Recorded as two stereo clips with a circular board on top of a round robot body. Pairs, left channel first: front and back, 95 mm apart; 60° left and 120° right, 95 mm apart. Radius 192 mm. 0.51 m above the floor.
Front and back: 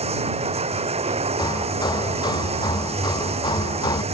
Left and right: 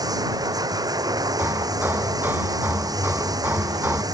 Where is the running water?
170° right.